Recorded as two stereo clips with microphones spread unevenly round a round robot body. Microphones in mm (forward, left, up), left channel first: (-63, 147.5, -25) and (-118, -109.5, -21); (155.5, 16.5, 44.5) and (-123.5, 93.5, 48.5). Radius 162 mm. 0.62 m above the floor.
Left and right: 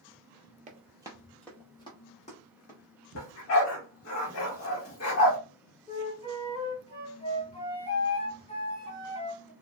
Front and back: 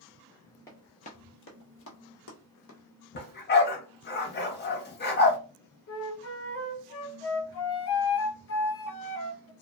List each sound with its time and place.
0.7 s running footsteps: 90° right, 0.6 m; by 2.8 s 20° left, 1.3 m
3.1 s a dog barking: 40° left, 0.8 m
5.9 s a flute: 15° left, 0.6 m